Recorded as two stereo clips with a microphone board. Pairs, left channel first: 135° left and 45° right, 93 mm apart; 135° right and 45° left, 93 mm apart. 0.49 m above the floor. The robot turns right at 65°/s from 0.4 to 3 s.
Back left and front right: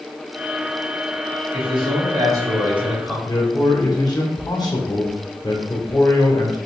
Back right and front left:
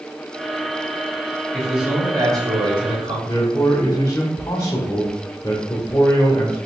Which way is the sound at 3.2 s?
175° left.